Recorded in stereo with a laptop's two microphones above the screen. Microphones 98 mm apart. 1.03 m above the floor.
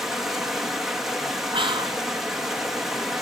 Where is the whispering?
60° right (ahead or behind), 1.3 m.